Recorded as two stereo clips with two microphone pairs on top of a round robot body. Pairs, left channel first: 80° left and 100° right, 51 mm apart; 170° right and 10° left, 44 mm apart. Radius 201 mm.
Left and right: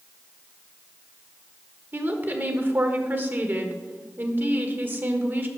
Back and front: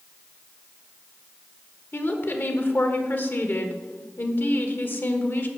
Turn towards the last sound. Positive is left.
turn(degrees=-145)